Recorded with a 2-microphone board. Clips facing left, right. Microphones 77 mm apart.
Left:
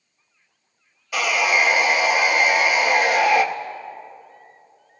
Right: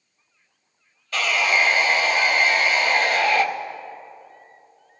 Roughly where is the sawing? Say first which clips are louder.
Left 1 dB; centre.